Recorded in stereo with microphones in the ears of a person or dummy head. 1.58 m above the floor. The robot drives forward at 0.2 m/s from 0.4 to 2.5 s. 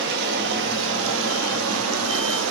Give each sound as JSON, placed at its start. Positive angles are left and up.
{"t": 0.0, "sound": "running water", "side_deg": -65, "distance_m": 0.7}